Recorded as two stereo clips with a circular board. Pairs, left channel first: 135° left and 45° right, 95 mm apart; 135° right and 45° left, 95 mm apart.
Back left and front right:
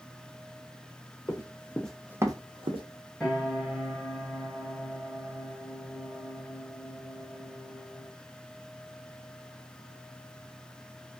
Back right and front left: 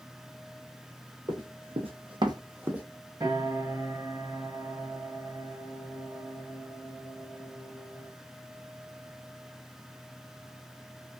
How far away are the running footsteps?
About 0.9 m.